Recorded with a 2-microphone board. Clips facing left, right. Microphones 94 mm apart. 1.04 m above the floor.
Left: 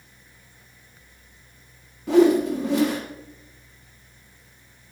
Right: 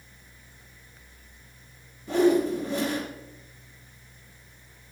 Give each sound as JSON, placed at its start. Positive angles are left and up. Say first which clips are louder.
{"t": 2.1, "sound": "a whoosh", "louder": "left 5 dB", "side_deg": 85, "distance_m": 1.3}